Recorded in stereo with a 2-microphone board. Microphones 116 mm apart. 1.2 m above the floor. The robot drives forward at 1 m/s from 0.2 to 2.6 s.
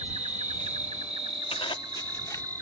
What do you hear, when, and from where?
0.0 s an insect: 75° right (ahead or behind); by 2.6 s 30° right (ahead or behind)
1.5 s a zipper: 55° left (ahead or behind); by 2.4 s 30° left (ahead or behind)